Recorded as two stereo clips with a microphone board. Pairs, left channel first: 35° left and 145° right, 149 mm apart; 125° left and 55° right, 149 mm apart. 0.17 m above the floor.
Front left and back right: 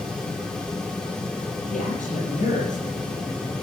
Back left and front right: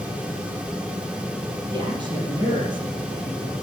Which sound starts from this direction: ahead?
A man speaking, at 1.7 s.